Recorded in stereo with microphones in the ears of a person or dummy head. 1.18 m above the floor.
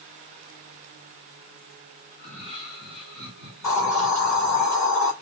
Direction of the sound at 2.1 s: 25° left (ahead or behind).